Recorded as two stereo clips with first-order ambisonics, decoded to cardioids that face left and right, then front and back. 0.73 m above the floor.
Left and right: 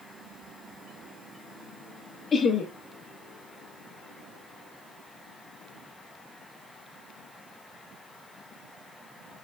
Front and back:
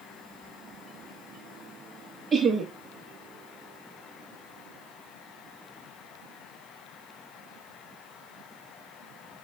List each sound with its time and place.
2.3 s laughter: 135° left, 0.5 m